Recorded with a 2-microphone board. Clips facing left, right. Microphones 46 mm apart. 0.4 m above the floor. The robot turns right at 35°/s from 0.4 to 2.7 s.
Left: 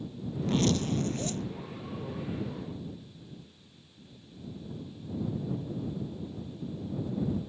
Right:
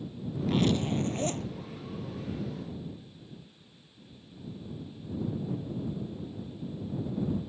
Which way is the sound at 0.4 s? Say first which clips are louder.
Right 1 dB; 175° right.